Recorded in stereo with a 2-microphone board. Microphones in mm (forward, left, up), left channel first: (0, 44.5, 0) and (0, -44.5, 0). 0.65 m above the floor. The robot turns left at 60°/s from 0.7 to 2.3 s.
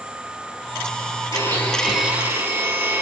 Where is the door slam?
No door slam in this recording.